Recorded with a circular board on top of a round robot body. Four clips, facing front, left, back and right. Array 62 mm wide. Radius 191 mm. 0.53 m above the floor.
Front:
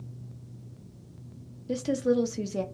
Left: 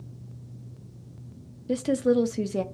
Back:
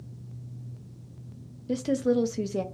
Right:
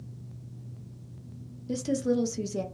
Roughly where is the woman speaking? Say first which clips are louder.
Left 4 dB, back 1 dB; left.